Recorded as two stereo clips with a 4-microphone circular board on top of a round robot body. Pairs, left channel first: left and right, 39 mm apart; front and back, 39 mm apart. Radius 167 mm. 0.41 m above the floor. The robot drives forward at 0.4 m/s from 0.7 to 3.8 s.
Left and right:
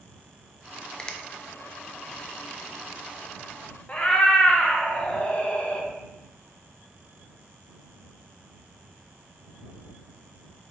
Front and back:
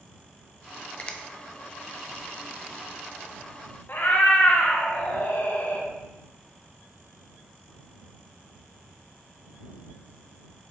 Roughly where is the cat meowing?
Ahead left.